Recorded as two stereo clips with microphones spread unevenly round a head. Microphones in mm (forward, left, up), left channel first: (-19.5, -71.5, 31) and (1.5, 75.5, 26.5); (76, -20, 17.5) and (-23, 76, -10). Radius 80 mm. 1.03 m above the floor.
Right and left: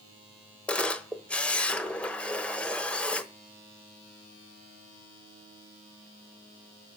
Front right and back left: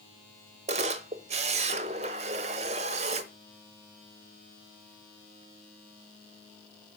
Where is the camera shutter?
Straight behind, 1.0 m.